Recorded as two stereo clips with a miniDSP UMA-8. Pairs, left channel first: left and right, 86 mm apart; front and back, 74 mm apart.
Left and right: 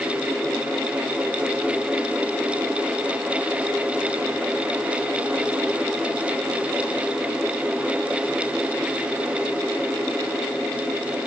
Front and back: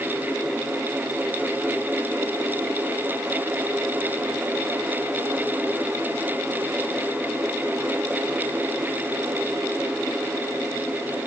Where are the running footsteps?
I don't hear running footsteps.